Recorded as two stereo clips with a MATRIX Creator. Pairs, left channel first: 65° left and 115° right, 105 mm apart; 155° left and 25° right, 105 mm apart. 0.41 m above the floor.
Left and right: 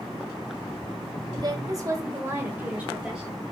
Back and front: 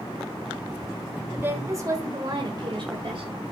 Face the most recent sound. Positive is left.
turn(degrees=-30)